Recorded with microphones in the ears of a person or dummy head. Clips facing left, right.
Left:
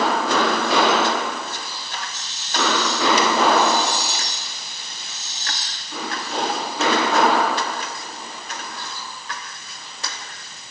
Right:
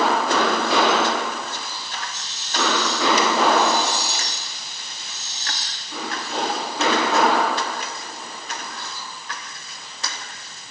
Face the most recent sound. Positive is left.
No sound to turn to.